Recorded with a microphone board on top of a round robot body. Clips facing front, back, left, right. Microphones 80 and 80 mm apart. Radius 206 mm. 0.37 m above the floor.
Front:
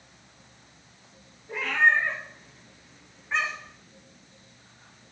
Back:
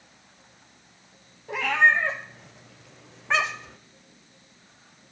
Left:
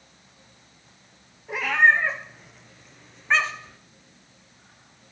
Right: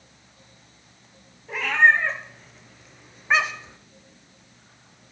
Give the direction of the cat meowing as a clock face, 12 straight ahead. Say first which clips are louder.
Back 2 dB, right 1 dB; 6 o'clock.